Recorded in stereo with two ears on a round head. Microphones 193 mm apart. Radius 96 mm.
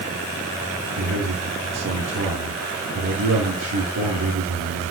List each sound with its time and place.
1.0 s a man speaking: 75° right (ahead or behind), 7 m